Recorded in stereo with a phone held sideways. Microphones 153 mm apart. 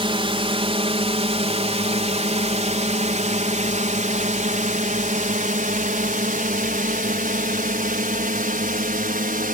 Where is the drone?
35° right (ahead or behind); by 9.5 s 65° right (ahead or behind).